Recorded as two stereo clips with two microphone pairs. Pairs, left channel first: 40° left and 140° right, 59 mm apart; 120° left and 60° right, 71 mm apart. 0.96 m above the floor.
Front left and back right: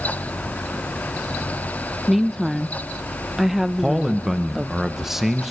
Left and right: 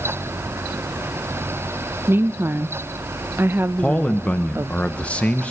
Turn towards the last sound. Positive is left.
turn(degrees=140)